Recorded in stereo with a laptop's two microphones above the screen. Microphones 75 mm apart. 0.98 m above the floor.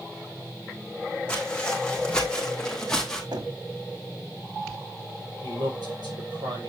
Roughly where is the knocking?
Right.